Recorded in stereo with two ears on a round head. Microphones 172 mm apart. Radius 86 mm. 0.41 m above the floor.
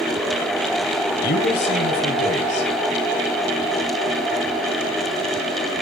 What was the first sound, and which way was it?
A man speaking, 60° left (ahead or behind).